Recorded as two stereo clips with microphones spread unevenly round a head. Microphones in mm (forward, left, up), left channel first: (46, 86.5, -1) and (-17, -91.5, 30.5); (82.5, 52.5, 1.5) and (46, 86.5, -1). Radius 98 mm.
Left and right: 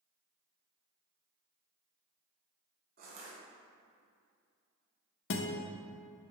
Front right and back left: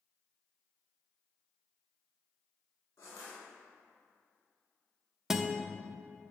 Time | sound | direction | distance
3.0 | crushing | 75° right | 2 m
5.3 | a guitar | 55° left | 0.7 m